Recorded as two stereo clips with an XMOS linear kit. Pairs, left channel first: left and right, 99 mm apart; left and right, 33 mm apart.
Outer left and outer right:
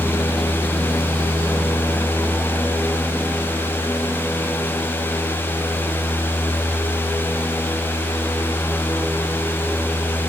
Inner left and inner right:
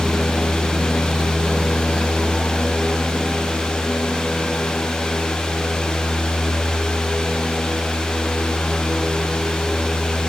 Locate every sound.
Only background noise.